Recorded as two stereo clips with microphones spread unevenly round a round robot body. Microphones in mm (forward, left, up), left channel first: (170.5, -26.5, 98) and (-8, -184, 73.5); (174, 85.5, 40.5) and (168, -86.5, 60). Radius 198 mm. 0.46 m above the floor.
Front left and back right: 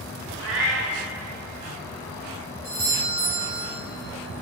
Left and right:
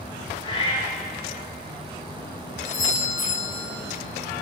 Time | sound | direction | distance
0.4 | a cat meowing | 165° left | 0.6 m
2.6 | a doorbell | 140° left | 3.5 m